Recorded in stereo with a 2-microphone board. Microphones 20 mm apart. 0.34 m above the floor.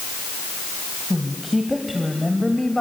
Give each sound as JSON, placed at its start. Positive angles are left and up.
{"t": 1.1, "sound": "a woman speaking", "side_deg": -5, "distance_m": 2.0}